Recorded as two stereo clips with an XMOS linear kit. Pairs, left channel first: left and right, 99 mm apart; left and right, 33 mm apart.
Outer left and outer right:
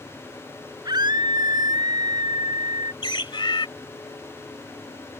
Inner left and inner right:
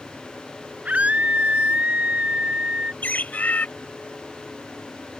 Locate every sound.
0.8 s a scream: 45° right (ahead or behind)
3.0 s a bird: 55° left (ahead or behind)